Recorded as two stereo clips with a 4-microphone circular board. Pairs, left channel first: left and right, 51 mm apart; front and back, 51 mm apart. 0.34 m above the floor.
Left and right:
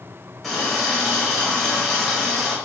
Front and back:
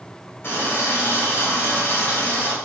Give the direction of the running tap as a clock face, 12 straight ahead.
12 o'clock.